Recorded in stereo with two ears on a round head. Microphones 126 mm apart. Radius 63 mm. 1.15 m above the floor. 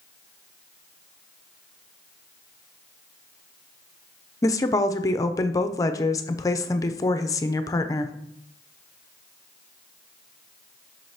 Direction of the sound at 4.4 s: 25° left (ahead or behind).